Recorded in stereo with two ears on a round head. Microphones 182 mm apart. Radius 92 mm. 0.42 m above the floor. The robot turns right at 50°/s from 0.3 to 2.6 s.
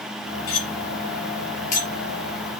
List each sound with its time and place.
0.5 s cutlery clinking: 75° left (ahead or behind), 4.5 m; by 1.9 s 35° left (ahead or behind), 4.5 m